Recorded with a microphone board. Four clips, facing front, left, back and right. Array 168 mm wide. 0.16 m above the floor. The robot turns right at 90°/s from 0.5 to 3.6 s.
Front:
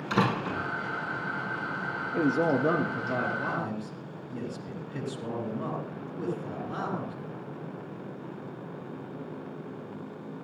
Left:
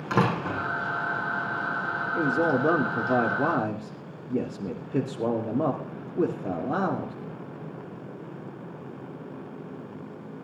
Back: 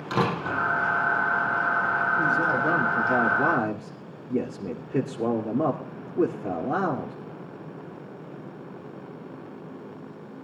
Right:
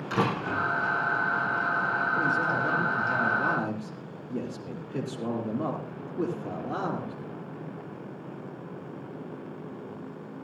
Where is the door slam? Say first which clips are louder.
Left 2 dB, back 2 dB; 115° left, 5 m; by 0.6 s 125° left, 5 m.